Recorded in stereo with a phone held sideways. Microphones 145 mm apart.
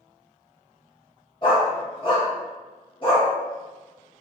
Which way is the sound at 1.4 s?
35° left (ahead or behind).